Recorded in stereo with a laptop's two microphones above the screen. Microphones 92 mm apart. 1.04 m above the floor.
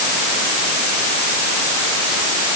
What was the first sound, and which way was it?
Only background noise.